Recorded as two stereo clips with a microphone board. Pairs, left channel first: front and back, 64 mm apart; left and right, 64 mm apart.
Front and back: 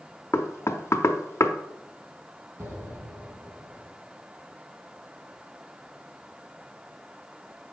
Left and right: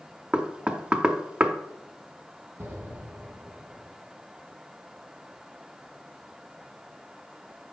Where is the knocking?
20° right, 0.7 m.